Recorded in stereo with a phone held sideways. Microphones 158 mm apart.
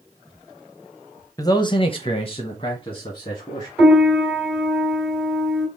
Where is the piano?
Centre (ahead or behind), 3 m.